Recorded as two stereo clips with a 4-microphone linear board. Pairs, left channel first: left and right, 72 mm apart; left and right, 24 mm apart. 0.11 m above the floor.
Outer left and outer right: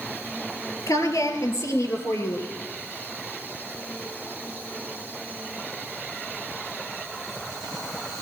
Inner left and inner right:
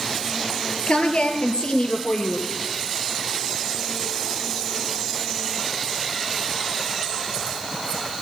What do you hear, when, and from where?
0.9 s a woman speaking: 50° left (ahead or behind), 1.7 m; by 2.5 s 40° left (ahead or behind), 2.5 m